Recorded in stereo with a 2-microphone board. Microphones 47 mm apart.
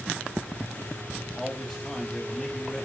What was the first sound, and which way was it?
A man speaking, 15° left (ahead or behind).